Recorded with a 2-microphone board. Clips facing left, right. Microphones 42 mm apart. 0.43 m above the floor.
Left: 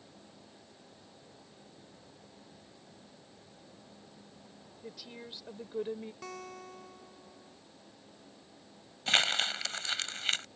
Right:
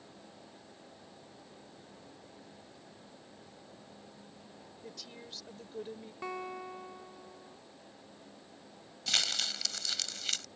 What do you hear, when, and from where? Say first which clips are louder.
4.8 s a woman speaking: left 3 dB; 10° left (ahead or behind); by 6.1 s 35° left (ahead or behind)
6.2 s a guitar: right 5 dB; 20° right (ahead or behind)
9.1 s crumpling: left 5 dB; 40° left (ahead or behind)